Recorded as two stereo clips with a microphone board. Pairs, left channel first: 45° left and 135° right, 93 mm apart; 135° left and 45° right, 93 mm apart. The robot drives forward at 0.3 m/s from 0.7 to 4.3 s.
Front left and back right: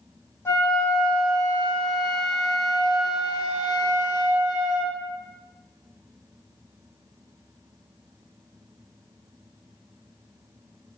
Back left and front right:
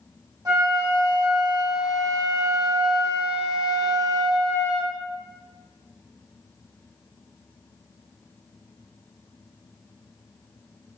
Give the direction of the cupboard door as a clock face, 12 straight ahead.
I don't hear a cupboard door.